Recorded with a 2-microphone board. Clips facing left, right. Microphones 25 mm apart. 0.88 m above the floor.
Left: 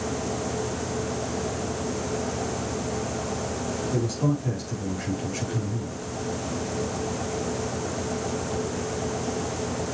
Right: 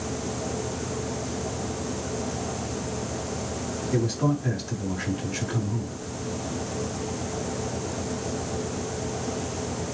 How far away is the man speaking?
About 7.5 m.